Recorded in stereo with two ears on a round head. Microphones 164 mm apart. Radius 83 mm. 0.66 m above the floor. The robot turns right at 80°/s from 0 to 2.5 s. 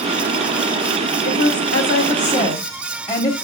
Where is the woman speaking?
50° left, 1.2 m; by 3.4 s 150° left, 1.2 m.